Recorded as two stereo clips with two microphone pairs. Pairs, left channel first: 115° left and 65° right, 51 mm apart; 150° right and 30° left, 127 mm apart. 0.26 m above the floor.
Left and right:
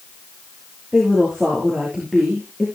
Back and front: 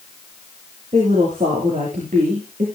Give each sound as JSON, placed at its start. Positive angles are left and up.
{"t": 0.9, "sound": "a woman speaking", "azimuth_deg": 10, "distance_m": 5.5}